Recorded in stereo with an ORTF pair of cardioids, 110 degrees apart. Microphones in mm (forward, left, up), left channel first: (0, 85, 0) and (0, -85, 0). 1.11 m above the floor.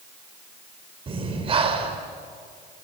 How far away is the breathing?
About 3 m.